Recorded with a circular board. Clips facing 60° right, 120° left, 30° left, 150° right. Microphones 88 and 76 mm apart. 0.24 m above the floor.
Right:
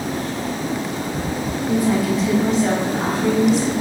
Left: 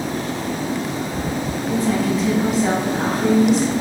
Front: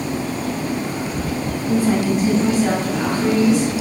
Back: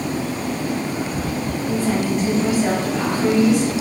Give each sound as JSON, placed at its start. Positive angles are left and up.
{"t": 1.7, "sound": "a woman speaking", "azimuth_deg": -10, "distance_m": 1.2}